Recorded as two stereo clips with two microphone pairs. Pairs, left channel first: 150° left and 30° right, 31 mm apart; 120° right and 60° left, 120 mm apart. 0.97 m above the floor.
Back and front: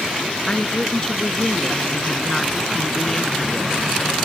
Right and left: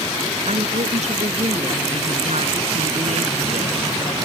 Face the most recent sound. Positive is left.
turn(degrees=85)